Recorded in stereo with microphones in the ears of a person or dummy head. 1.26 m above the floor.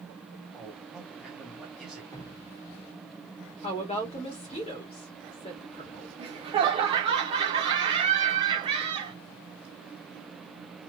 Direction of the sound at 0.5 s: 5° right (ahead or behind).